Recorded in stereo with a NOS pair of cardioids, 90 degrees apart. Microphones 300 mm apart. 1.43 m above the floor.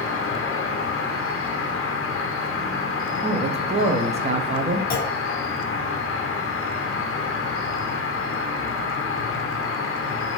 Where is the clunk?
30° left, 0.7 m.